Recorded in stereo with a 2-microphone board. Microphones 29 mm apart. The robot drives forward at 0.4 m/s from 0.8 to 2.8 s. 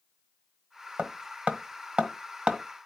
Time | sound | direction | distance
1.0 | hammering | 65° right (ahead or behind) | 1.1 m